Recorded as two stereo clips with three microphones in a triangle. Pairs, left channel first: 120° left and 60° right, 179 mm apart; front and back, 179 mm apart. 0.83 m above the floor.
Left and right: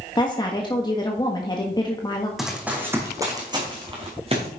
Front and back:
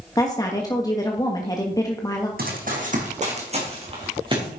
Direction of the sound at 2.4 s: 150° right.